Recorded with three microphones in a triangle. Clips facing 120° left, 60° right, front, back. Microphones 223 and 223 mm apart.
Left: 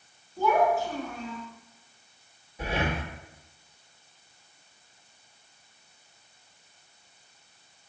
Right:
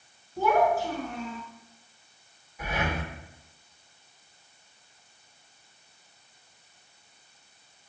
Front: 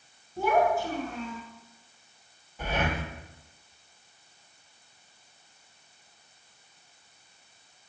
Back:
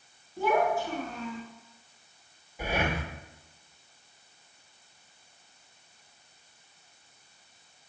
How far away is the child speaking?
About 3 m.